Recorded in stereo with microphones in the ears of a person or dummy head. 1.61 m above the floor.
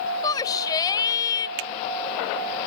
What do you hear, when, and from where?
0.2 s a shout: 30° left (ahead or behind)
1.6 s a finger snap: 85° right